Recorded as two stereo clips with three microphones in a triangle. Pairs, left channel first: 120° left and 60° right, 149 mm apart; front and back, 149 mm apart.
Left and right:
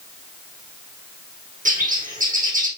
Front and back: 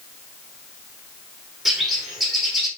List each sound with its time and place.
1.6 s a bird: 90° right, 3.5 m